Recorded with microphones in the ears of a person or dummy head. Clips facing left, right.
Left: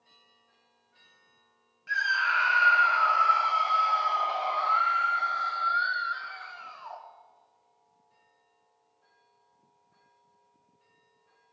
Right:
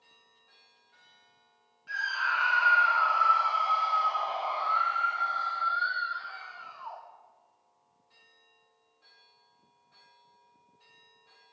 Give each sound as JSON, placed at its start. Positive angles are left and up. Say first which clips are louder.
{"t": 1.9, "sound": "a scream", "louder": "left 3 dB", "side_deg": 30, "distance_m": 3.5}